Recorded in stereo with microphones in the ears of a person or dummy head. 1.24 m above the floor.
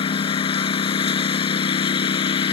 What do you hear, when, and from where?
0.0 s a lawn mower: 30° left (ahead or behind)